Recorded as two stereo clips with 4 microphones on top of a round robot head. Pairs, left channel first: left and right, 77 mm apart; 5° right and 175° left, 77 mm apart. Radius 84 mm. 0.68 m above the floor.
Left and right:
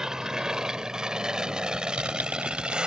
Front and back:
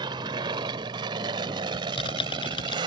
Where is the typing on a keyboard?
15° right.